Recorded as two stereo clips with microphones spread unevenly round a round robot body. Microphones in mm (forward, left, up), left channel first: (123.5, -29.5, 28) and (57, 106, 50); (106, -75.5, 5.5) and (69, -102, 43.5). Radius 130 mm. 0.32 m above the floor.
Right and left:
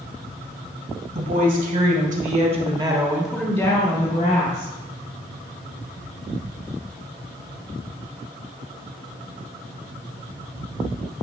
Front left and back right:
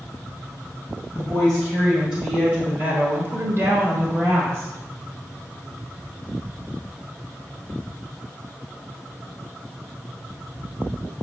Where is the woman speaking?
95° left, 3.5 m; by 4.7 s 80° right, 2.5 m.